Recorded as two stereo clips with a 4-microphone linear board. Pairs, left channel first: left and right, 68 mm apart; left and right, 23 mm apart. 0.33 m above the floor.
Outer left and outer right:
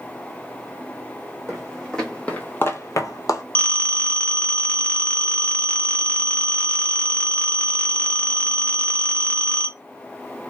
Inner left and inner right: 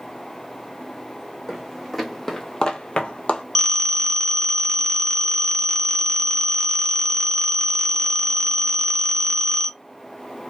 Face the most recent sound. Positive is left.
turn(degrees=20)  # may be behind; listen again after turning